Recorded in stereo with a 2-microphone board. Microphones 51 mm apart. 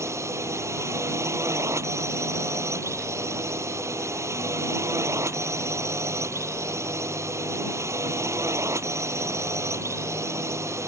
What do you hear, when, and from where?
0.0 s a drone: 70° right (ahead or behind)